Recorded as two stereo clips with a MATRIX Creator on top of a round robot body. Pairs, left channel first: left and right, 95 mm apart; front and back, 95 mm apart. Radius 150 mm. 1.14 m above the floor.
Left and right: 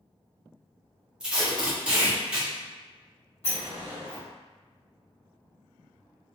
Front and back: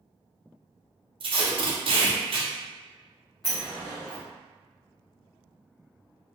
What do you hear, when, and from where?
1.2 s tape being pulled: 170° right, 0.8 m
3.4 s a sliding door: 90° left, 1.0 m